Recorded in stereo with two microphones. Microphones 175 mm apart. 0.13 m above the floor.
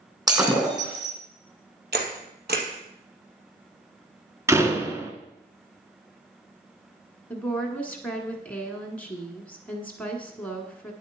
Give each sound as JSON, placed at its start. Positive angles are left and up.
{"t": 0.3, "sound": "breaking glass", "side_deg": -20, "distance_m": 3.0}
{"t": 1.9, "sound": "a camera shutter", "side_deg": -70, "distance_m": 2.0}
{"t": 4.5, "sound": "a door slam", "side_deg": -15, "distance_m": 1.1}
{"t": 7.3, "sound": "a woman speaking", "side_deg": 10, "distance_m": 1.4}